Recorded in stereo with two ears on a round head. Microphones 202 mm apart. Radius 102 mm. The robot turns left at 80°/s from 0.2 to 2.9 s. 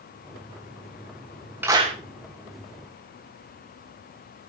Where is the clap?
10° right (ahead or behind), 2.5 m; by 2.0 s 35° right (ahead or behind), 2.5 m.